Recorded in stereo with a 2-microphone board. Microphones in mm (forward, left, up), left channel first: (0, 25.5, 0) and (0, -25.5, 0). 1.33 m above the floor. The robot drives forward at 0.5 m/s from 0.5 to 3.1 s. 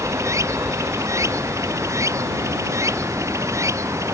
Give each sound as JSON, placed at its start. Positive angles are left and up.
{"t": 0.0, "sound": "running water", "side_deg": -85}